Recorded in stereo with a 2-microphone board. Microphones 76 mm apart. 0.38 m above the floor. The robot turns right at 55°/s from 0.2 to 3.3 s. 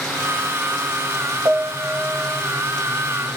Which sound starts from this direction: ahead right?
A piano, at 1.4 s.